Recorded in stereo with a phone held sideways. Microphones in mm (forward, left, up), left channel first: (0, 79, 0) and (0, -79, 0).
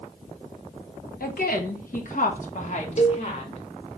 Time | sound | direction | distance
1.2 | a woman speaking | 65° left (ahead or behind) | 1.1 m
3.0 | a cowbell | 45° left (ahead or behind) | 0.8 m